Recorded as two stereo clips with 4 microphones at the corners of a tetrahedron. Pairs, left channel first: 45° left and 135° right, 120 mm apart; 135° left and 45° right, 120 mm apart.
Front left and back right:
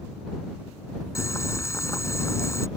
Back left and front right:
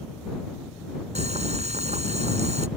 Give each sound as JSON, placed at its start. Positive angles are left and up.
{"t": 1.1, "sound": "boiling", "azimuth_deg": -20}